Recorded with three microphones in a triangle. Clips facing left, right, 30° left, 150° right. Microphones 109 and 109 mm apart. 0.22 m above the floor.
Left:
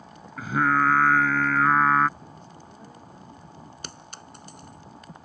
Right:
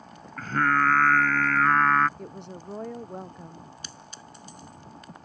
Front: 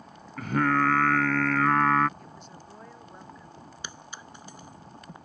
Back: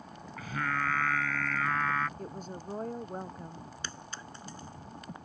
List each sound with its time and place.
0.4 s singing: 10° left
2.2 s a woman speaking: 105° right
3.8 s a clink: 105° left